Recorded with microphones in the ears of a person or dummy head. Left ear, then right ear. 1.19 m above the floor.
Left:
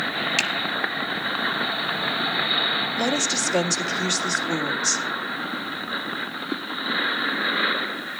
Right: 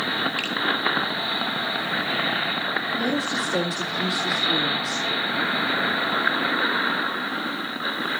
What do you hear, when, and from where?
0.4 s a finger snap: 60° left (ahead or behind), 1.4 m
3.0 s a woman speaking: 50° left (ahead or behind), 2 m